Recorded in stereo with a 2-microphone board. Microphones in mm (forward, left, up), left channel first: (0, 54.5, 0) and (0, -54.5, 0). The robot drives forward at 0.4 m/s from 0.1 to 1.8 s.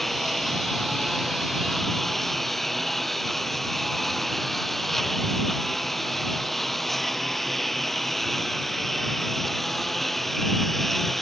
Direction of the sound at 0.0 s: Centre (ahead or behind).